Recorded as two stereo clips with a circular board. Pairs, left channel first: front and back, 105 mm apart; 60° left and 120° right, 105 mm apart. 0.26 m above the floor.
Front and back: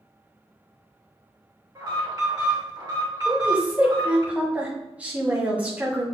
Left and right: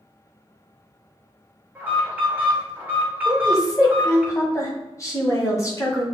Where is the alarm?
175° left, 2.5 m.